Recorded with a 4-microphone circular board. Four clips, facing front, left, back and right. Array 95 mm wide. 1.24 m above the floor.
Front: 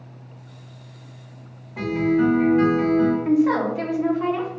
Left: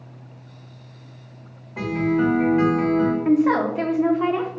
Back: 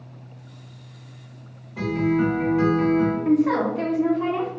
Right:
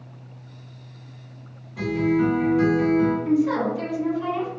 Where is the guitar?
75° left, 1.1 m.